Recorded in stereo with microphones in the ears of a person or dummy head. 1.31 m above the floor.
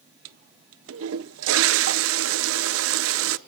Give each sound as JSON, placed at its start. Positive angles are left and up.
{"t": 0.2, "sound": "a toilet flushing", "side_deg": -70, "distance_m": 0.6}